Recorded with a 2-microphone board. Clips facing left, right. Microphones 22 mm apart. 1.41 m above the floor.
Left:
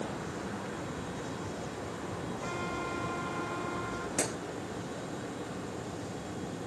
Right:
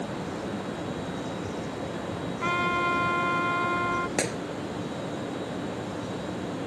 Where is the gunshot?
40° right (ahead or behind).